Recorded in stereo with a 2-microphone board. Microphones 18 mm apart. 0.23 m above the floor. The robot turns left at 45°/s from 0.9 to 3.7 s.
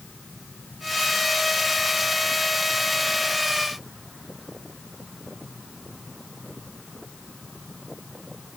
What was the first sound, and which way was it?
Only background noise.